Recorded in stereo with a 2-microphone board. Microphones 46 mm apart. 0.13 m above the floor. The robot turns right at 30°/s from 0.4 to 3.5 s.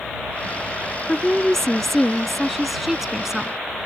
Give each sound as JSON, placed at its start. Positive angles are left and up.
{"t": 1.1, "sound": "a woman speaking", "side_deg": 10}